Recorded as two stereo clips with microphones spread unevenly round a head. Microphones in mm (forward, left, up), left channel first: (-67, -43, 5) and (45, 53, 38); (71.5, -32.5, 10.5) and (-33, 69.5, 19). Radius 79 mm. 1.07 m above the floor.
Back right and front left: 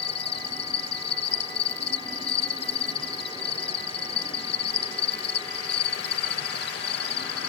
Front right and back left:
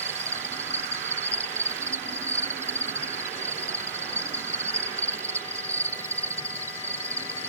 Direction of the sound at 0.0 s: 150° right.